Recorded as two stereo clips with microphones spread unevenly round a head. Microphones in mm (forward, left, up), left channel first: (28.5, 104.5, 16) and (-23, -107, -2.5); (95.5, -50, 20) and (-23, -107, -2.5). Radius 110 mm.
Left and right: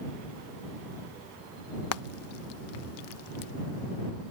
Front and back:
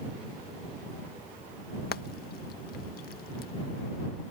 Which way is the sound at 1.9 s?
55° left.